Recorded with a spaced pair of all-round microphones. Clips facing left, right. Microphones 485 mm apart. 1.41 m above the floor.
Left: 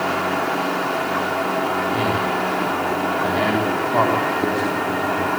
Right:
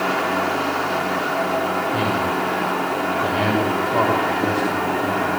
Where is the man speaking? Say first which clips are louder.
Even; 45° right (ahead or behind), 6 m.